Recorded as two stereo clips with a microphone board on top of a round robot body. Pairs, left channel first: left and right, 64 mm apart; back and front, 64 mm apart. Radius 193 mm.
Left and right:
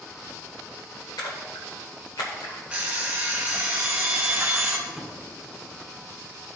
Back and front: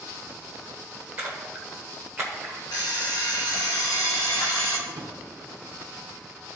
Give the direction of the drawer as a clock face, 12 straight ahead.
12 o'clock.